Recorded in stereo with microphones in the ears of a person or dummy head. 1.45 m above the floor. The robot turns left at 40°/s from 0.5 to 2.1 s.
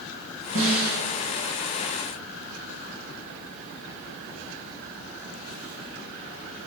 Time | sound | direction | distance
0.6 | a snare drum | 75° right (ahead or behind) | 4.5 m